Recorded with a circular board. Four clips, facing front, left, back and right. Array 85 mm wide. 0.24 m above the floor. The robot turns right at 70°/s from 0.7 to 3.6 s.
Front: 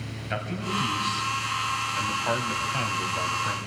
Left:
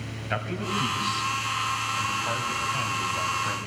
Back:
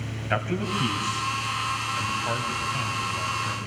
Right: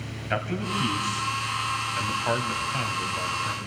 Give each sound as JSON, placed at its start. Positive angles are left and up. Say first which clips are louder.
{"t": 0.3, "sound": "a man speaking", "louder": "right 1 dB, back 3 dB", "azimuth_deg": -165, "distance_m": 1.6}